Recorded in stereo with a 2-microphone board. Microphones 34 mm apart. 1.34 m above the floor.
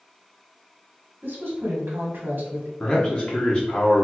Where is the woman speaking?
60° right (ahead or behind), 1.4 m.